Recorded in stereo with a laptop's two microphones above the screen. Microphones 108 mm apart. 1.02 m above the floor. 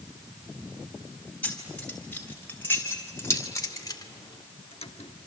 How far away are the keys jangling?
About 4 m.